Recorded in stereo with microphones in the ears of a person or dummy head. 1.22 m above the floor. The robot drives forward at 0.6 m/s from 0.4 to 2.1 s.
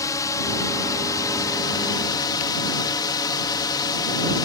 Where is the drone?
25° left (ahead or behind).